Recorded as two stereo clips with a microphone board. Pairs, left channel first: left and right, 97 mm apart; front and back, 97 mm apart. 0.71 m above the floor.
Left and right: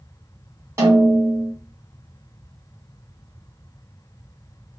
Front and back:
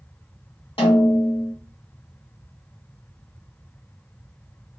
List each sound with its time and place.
0.8 s a snare drum: 25° right, 2 m